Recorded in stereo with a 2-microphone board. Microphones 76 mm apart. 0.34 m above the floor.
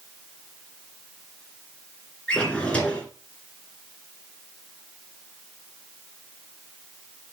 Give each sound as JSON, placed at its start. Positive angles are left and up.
{"t": 2.3, "sound": "a drawer", "side_deg": 15, "distance_m": 2.5}